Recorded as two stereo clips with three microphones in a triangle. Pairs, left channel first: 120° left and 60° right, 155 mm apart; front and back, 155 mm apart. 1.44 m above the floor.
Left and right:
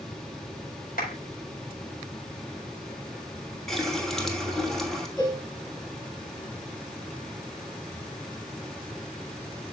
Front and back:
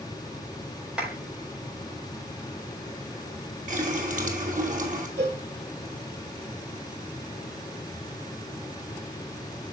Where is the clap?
95° left, 4.5 m.